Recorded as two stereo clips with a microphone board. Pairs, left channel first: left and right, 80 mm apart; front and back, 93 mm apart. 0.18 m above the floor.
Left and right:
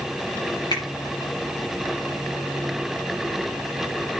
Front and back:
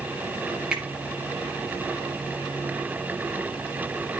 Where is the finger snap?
100° left, 3 m.